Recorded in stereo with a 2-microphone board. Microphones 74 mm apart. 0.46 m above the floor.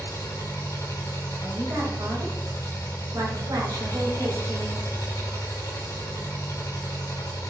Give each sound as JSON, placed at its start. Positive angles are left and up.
{"t": 0.0, "sound": "an engine running", "side_deg": 50, "distance_m": 3.0}
{"t": 1.4, "sound": "a woman speaking", "side_deg": -60, "distance_m": 2.5}